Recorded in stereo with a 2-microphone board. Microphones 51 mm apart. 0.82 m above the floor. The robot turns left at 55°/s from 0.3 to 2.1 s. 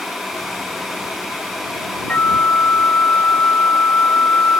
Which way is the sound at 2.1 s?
35° left (ahead or behind).